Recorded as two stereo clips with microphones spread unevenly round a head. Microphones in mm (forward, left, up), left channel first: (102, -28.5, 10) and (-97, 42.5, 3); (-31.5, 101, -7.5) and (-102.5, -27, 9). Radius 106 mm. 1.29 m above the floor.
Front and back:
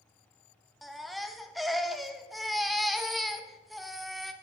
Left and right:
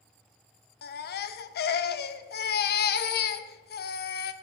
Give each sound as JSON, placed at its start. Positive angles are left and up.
{"t": 0.8, "sound": "a baby crying", "azimuth_deg": 70, "distance_m": 0.5}